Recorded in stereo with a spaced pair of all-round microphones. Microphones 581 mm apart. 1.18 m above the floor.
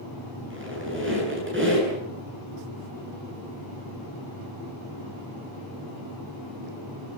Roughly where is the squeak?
Centre.